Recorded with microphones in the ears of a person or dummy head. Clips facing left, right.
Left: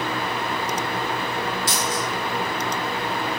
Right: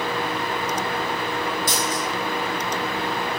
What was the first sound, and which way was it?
A dropped coin, 25° left (ahead or behind).